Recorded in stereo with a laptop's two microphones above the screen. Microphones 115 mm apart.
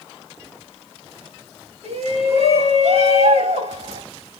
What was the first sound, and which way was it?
A shout, 75° right (ahead or behind).